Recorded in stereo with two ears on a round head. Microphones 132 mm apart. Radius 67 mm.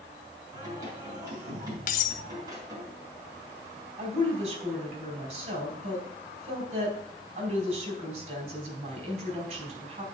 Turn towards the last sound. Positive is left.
turn(degrees=-50)  # may be behind; listen again after turning